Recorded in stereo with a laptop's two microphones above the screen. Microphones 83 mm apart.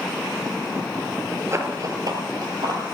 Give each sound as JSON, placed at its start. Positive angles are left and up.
{"t": 1.5, "sound": "running footsteps", "side_deg": -35, "distance_m": 1.1}